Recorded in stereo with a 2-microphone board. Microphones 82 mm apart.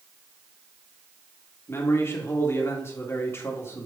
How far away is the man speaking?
About 1.8 m.